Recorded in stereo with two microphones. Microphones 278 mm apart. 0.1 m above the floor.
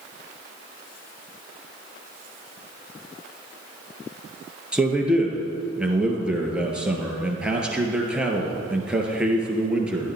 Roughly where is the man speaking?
Centre.